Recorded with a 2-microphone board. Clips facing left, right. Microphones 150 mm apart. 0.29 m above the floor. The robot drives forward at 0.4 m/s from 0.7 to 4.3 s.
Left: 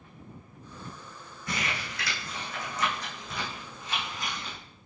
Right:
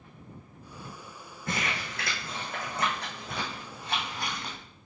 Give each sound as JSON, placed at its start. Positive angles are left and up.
{"t": 1.5, "sound": "crumpling", "side_deg": -55, "distance_m": 3.5}